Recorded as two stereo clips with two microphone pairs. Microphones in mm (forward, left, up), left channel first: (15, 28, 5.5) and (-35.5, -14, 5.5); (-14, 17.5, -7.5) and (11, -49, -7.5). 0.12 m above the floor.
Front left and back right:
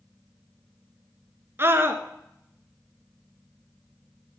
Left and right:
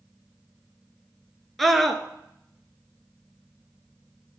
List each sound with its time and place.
1.6 s a scream: 160° right, 1.3 m